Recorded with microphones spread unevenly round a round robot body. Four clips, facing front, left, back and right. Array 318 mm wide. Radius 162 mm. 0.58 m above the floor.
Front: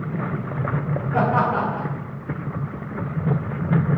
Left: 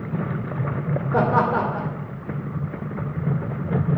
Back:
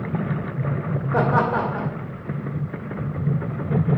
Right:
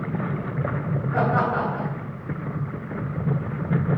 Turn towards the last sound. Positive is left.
turn(degrees=125)